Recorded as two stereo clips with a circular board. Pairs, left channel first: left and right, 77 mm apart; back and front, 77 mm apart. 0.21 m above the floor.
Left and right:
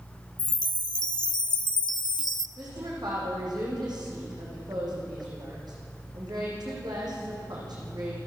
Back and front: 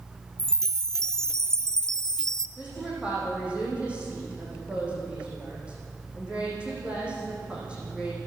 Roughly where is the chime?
Left.